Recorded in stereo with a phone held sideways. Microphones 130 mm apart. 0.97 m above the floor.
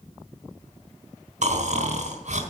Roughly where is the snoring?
Right.